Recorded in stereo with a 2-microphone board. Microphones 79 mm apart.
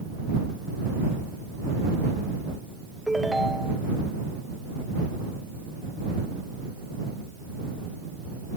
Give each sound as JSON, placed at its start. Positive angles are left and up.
{"t": 3.1, "sound": "a ringtone", "side_deg": 0}